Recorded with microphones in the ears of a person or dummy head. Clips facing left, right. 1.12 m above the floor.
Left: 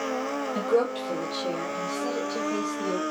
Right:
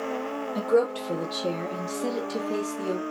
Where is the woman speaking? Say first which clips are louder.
Right 2 dB; centre (ahead or behind), 0.9 m; by 3.0 s 40° right (ahead or behind), 1.9 m.